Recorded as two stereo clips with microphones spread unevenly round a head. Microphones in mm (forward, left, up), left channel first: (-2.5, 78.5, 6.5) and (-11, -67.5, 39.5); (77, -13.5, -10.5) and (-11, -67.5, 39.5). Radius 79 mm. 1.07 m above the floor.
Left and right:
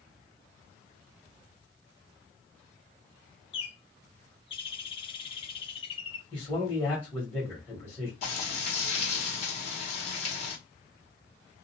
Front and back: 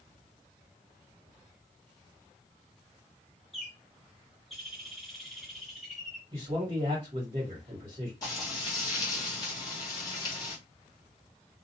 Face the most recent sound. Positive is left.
turn(degrees=60)